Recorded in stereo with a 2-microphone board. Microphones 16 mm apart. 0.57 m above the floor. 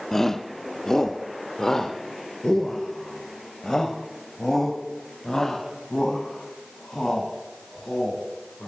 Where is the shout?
30° left (ahead or behind), 1.1 m; by 8.7 s 40° left (ahead or behind), 6.5 m.